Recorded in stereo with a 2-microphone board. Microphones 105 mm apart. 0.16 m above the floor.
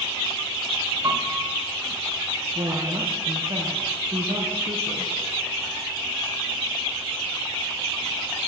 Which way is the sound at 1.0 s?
40° right (ahead or behind).